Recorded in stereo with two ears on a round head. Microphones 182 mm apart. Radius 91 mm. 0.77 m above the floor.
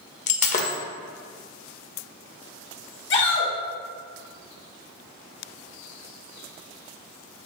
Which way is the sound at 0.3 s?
35° left (ahead or behind).